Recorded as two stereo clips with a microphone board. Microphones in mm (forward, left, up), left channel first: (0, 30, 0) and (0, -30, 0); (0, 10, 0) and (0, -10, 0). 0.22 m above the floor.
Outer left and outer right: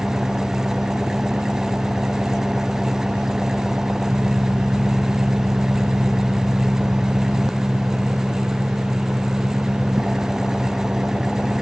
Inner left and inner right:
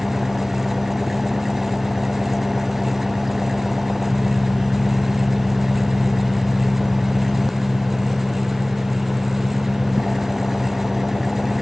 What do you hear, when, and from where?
0.0 s an engine running: 5° right (ahead or behind)